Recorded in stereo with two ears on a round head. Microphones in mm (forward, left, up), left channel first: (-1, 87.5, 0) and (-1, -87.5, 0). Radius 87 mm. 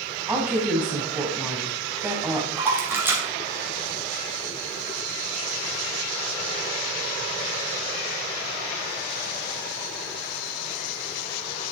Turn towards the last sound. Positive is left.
turn(degrees=-10)  # may be behind; listen again after turning